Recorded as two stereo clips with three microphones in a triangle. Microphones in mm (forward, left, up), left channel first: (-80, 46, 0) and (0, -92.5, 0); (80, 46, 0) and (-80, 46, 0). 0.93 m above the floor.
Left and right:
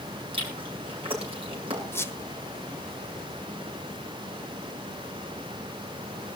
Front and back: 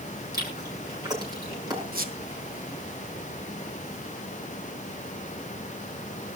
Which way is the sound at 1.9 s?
165° right.